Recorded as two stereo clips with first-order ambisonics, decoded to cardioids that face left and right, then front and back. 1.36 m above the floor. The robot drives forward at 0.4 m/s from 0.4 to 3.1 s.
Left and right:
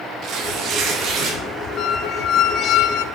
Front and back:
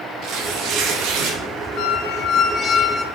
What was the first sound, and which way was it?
Tearing paper, 135° right.